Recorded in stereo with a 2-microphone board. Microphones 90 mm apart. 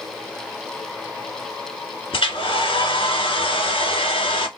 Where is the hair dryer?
75° left (ahead or behind), 1.2 m.